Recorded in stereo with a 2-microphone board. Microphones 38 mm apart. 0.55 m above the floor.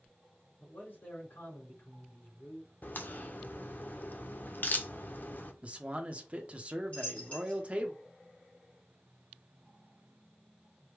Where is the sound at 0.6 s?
65° left (ahead or behind), 2.5 m.